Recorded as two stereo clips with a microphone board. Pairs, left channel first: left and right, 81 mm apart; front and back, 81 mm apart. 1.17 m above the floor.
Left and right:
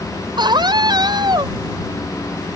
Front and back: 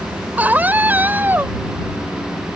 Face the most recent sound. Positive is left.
turn(degrees=-115)